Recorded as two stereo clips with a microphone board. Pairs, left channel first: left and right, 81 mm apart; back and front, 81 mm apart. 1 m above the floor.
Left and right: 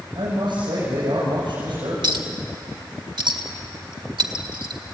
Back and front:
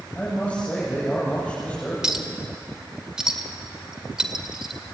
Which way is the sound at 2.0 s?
80° right.